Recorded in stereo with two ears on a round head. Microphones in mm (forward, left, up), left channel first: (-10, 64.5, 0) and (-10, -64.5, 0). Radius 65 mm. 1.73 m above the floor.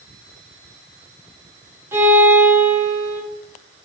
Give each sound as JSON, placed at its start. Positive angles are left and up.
{"t": 1.9, "sound": "a violin", "side_deg": -20, "distance_m": 4.0}